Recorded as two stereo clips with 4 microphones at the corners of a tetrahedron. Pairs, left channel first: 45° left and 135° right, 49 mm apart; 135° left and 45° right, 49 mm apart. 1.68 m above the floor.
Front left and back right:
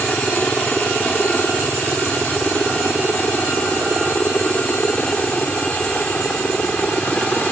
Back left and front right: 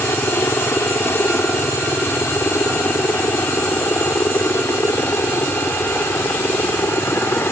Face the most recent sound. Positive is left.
turn(degrees=110)